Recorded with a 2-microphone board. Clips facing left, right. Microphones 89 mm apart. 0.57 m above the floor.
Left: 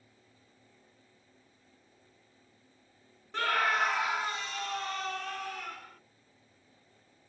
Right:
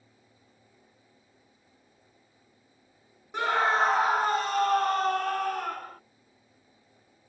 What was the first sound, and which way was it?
A scream, 15° right (ahead or behind).